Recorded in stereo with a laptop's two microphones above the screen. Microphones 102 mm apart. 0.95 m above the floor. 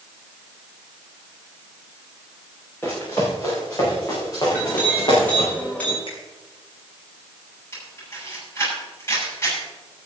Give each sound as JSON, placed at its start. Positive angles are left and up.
{"t": 2.8, "sound": "running footsteps", "side_deg": 25, "distance_m": 6.5}
{"t": 4.5, "sound": "a clink", "side_deg": 15, "distance_m": 6.5}
{"t": 6.1, "sound": "a finger snap", "side_deg": 60, "distance_m": 4.5}
{"t": 7.7, "sound": "a camera shutter", "side_deg": 25, "distance_m": 6.5}